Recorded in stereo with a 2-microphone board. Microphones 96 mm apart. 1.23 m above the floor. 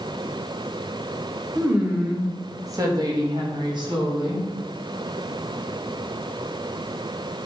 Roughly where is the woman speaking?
Centre.